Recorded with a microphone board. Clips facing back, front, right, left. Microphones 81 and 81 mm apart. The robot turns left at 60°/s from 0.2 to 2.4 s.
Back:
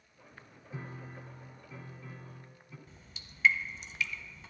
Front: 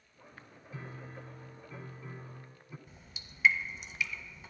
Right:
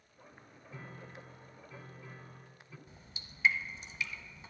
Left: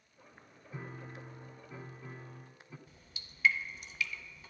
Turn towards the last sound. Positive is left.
turn(degrees=-75)